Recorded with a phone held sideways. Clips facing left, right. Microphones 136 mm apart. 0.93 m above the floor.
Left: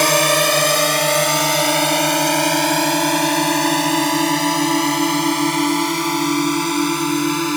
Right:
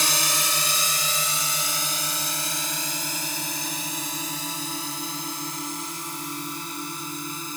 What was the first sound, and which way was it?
A drone, 65° left (ahead or behind).